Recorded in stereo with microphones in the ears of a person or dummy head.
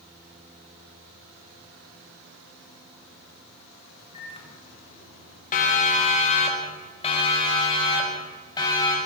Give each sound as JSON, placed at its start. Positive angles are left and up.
{"t": 4.1, "sound": "a microwave", "side_deg": 25, "distance_m": 4.0}
{"t": 5.5, "sound": "a siren", "side_deg": 45, "distance_m": 3.5}